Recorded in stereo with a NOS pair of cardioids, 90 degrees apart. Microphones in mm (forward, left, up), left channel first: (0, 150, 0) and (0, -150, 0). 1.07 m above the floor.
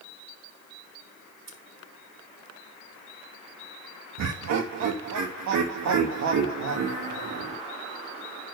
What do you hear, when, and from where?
1.5 s scissors: 40° right, 3.5 m
4.2 s laughter: 65° right, 1.6 m